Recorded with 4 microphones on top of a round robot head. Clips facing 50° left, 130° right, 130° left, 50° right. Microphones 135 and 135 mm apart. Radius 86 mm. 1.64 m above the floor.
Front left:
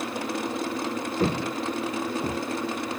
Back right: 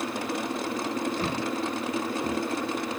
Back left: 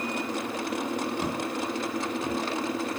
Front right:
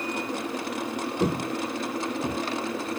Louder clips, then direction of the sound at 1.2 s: Front left 3 dB, front right 3 dB; 5° right.